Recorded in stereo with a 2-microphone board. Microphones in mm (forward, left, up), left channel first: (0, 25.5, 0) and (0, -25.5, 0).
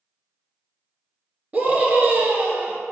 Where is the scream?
30° right (ahead or behind), 1.6 m.